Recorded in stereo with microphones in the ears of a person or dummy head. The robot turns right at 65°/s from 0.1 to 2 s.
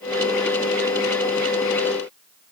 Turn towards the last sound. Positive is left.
No sound to turn to.